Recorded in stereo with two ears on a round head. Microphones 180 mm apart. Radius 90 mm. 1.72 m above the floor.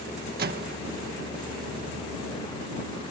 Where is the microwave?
50° right (ahead or behind).